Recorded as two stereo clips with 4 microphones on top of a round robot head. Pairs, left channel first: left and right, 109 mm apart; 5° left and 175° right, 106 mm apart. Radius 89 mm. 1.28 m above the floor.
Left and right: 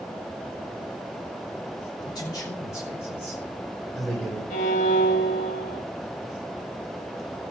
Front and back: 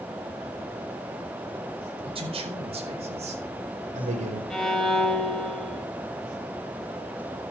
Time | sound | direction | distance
2.0 | a man speaking | 155° left | 5 m
4.5 | a violin | 90° left | 3.5 m